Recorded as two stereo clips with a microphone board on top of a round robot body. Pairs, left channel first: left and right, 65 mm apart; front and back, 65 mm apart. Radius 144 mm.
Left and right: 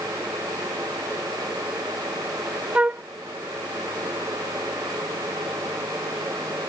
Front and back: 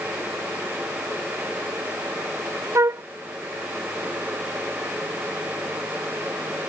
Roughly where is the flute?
Behind right.